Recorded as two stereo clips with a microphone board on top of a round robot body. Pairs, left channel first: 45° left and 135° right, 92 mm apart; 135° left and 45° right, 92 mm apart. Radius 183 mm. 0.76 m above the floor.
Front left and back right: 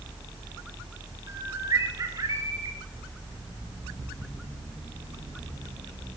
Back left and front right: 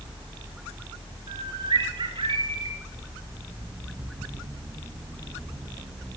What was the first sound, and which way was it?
A bird, 80° right.